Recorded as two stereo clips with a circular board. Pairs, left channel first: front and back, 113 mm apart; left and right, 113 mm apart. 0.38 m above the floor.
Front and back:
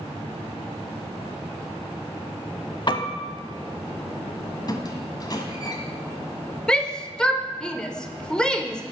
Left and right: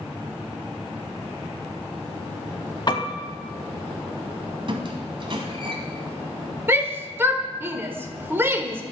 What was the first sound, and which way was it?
A piano, 45° left.